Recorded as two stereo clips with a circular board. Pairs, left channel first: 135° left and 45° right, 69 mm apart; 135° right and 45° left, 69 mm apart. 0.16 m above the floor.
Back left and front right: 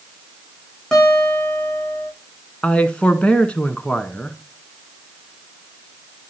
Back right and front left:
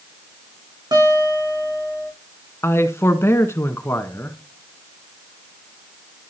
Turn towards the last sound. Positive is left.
turn(degrees=-160)